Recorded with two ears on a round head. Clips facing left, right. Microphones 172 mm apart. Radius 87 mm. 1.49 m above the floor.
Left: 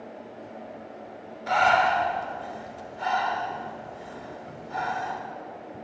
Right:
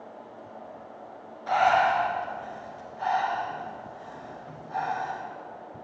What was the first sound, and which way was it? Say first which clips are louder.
Breathing: even; 25° left (ahead or behind).